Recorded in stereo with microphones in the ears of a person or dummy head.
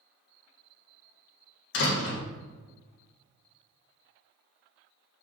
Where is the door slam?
70° left (ahead or behind), 1.5 m.